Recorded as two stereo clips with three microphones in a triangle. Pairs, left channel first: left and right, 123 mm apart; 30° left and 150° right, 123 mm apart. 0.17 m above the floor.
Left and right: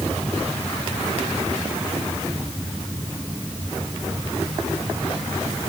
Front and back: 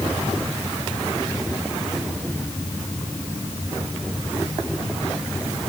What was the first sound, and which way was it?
Only background noise.